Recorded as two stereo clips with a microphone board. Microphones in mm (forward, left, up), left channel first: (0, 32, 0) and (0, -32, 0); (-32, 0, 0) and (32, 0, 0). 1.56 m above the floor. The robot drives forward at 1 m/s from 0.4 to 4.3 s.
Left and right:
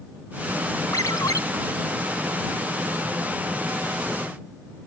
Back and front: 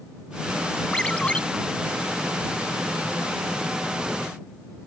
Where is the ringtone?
105° left; by 1.4 s 110° left.